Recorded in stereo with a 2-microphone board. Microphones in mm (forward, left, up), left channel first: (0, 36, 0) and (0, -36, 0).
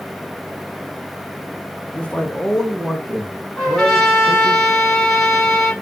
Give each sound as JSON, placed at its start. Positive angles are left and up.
{"t": 1.9, "sound": "a man speaking", "side_deg": 20, "distance_m": 0.9}
{"t": 3.6, "sound": "a trumpet", "side_deg": 0, "distance_m": 1.8}